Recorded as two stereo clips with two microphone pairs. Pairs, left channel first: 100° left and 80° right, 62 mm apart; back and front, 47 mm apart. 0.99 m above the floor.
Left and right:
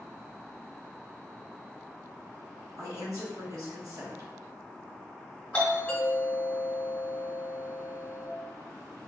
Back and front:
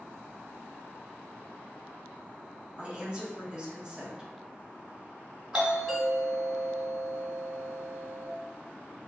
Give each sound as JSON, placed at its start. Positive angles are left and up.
{"t": 2.8, "sound": "a woman speaking", "azimuth_deg": -65, "distance_m": 1.7}
{"t": 5.5, "sound": "a doorbell", "azimuth_deg": 65, "distance_m": 1.3}